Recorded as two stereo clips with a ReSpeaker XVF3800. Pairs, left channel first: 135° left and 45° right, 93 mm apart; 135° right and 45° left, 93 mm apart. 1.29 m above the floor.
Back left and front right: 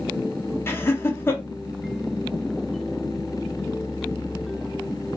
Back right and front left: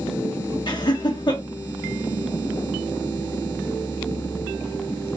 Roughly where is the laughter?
Behind.